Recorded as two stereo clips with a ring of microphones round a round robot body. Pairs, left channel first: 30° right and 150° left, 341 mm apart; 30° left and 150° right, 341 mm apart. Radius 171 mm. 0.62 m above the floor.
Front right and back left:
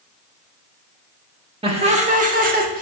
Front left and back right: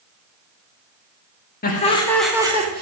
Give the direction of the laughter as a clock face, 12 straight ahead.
9 o'clock.